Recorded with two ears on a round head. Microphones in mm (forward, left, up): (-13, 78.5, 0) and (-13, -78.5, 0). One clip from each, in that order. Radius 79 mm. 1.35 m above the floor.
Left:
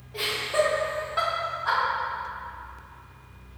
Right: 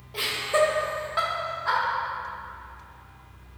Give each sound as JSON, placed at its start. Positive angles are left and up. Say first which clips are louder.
{"t": 0.1, "sound": "laughter", "louder": "right 2 dB", "side_deg": -30, "distance_m": 0.7}